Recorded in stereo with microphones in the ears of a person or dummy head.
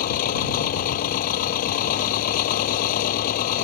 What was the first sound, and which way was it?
An engine running, 50° left (ahead or behind).